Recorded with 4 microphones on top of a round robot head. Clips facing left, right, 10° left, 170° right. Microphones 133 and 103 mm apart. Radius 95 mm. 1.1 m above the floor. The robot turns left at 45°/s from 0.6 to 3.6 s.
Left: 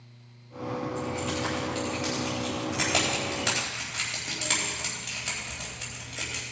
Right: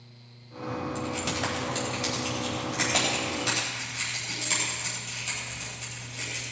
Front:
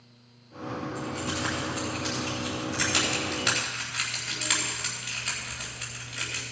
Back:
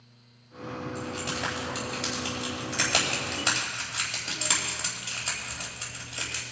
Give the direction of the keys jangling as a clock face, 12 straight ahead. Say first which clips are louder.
Left 1 dB, front 1 dB; 4 o'clock.